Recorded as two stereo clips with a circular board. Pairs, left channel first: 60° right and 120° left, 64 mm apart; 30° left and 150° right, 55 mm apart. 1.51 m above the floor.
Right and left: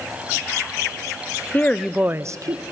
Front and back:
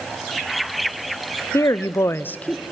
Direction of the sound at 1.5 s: Straight ahead.